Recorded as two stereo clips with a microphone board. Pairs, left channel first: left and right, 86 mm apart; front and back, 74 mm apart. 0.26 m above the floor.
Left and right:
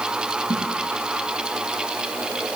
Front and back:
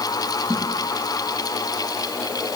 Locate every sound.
0.5 s a snare drum: 130° right, 9.5 m